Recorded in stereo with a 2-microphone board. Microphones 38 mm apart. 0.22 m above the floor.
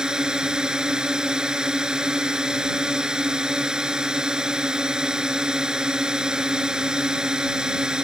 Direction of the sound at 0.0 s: 20° right (ahead or behind).